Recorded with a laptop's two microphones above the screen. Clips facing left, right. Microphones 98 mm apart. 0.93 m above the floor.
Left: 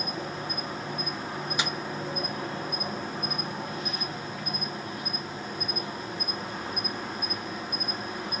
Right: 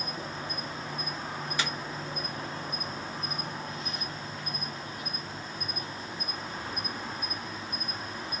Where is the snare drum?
15° left (ahead or behind), 0.6 m.